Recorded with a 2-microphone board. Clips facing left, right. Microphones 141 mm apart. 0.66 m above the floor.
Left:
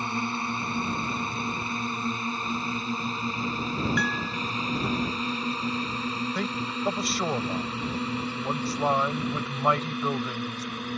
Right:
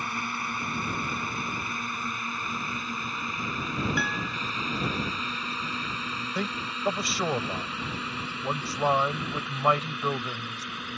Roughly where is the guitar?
Centre.